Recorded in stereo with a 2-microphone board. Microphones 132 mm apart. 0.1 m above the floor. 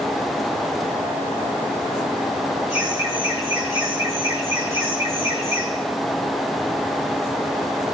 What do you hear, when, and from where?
2.7 s laughter: 20° right (ahead or behind), 9.5 m